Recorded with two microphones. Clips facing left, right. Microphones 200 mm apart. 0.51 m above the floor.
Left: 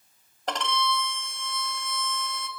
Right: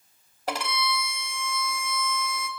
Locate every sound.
0.5 s a violin: 10° right (ahead or behind), 2.5 m